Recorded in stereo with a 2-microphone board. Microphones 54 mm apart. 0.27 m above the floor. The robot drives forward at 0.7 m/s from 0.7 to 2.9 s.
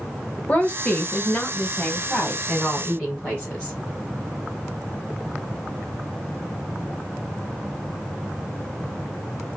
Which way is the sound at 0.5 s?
20° left (ahead or behind).